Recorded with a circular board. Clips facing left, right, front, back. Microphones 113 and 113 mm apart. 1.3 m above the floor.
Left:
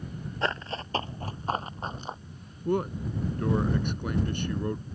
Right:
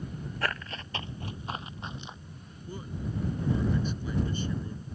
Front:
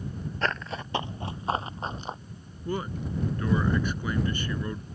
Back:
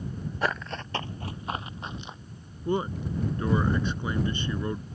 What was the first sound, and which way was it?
Running footsteps, 120° left.